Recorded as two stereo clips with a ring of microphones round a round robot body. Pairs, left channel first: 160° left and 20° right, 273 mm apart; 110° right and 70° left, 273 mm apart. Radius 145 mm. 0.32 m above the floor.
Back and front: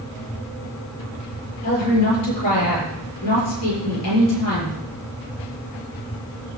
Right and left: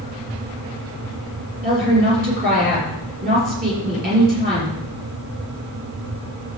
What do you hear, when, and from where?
1.6 s a woman speaking: 125° left, 6.5 m